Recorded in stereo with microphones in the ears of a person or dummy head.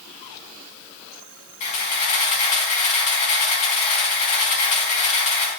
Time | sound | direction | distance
1.6 | a camera shutter | 40° left (ahead or behind) | 4.5 m